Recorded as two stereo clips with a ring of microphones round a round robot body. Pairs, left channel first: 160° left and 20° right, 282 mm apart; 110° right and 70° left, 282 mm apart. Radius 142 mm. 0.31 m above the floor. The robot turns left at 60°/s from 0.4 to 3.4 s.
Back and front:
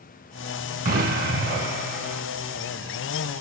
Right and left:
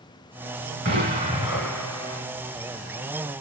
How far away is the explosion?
About 1.8 m.